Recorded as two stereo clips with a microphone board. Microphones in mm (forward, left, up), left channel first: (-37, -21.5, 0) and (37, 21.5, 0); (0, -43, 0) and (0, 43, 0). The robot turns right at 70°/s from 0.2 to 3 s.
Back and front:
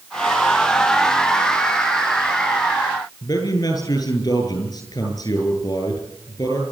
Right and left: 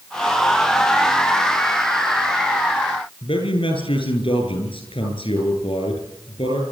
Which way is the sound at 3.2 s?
100° right.